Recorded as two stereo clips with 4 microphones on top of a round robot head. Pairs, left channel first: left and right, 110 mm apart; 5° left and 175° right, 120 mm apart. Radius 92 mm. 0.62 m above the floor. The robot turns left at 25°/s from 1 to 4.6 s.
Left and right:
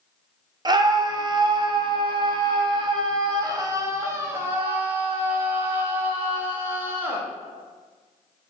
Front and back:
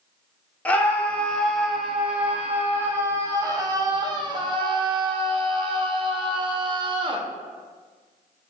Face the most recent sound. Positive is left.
turn(degrees=-155)